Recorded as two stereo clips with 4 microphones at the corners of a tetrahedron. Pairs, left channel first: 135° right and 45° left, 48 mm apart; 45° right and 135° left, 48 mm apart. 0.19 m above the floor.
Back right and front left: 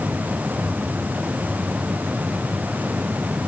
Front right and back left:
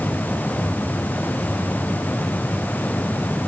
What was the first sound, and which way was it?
Only background noise.